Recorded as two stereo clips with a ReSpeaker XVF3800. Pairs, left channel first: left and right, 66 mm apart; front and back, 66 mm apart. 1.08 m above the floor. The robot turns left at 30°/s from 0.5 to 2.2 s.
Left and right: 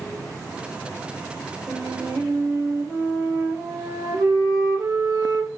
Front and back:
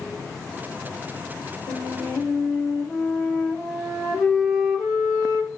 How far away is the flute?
About 3 m.